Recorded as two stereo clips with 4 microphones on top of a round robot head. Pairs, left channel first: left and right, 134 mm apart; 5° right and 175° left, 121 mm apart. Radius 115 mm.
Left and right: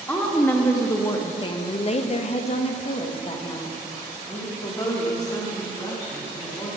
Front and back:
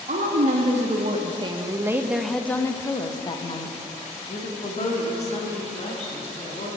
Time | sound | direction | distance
0.1 | a woman speaking | 165° left | 1.3 m